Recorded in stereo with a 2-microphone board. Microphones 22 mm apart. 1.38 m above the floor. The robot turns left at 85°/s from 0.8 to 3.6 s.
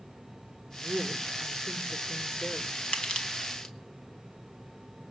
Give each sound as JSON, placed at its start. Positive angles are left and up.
{"t": 0.8, "sound": "a woman speaking", "azimuth_deg": -125, "distance_m": 3.5}
{"t": 2.9, "sound": "crushing", "side_deg": 60, "distance_m": 2.5}